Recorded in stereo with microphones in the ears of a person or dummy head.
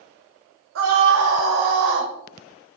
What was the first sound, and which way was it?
A scream, 70° right (ahead or behind).